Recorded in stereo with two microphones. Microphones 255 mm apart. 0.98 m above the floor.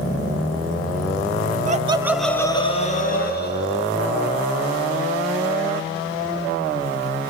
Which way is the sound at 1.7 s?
30° right (ahead or behind).